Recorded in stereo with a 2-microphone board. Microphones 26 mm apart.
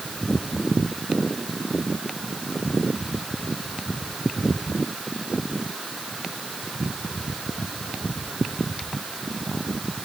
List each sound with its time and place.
Only background noise.